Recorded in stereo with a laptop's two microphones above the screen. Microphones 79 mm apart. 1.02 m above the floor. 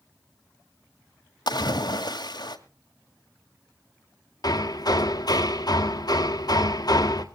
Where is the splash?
65° left (ahead or behind), 1.8 m.